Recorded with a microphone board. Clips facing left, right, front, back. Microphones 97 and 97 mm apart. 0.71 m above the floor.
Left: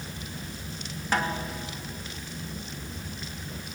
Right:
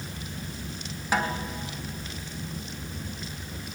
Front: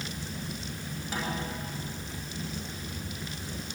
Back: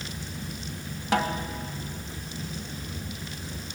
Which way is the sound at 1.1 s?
175° right.